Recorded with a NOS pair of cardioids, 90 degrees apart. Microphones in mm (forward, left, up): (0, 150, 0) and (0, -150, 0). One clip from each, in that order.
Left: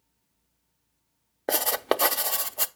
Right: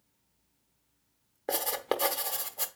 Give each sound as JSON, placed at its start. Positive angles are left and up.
{"t": 1.5, "sound": "writing", "azimuth_deg": 35, "distance_m": 0.6}